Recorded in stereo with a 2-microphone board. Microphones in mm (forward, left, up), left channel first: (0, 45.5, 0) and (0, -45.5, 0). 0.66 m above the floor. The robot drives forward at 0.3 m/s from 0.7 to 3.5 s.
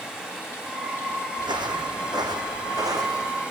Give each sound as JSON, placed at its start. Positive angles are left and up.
{"t": 0.0, "sound": "running water", "side_deg": -10, "distance_m": 4.5}
{"t": 1.4, "sound": "footsteps", "side_deg": -60, "distance_m": 1.8}